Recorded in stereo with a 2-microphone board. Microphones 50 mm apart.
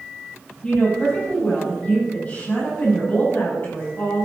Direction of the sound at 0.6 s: 25° left (ahead or behind).